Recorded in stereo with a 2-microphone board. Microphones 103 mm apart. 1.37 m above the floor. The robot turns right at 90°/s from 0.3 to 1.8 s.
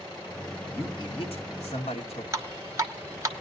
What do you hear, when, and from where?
0.7 s a man speaking: 15° left, 1.9 m; by 2.2 s 110° left, 1.9 m
2.3 s dripping: 30° right (ahead or behind), 1.1 m